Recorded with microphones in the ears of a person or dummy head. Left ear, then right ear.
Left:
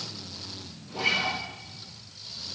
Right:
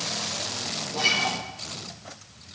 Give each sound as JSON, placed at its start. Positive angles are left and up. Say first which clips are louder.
{"t": 0.9, "sound": "a guitar", "louder": "right 2 dB", "side_deg": -45, "distance_m": 6.5}